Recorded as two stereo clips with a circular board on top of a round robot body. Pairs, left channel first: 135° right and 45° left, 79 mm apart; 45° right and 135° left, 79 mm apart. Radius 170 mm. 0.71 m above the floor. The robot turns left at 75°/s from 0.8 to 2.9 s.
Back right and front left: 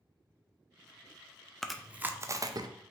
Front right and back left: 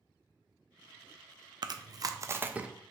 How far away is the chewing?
About 0.6 m.